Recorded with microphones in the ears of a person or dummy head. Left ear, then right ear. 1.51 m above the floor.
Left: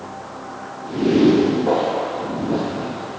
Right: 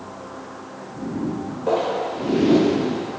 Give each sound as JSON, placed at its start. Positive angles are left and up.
{"t": 1.7, "sound": "footsteps", "side_deg": 0, "distance_m": 1.5}